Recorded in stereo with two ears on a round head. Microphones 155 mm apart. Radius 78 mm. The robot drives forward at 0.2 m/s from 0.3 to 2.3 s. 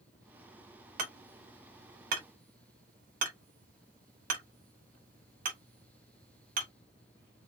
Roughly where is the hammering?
Right.